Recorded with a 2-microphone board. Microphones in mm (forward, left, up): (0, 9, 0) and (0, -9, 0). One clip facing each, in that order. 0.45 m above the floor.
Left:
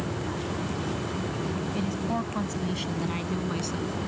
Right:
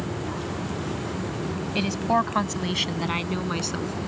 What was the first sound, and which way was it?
A woman speaking, 65° right (ahead or behind).